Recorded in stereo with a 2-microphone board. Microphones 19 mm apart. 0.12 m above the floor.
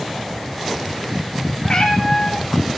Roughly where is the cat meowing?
Left.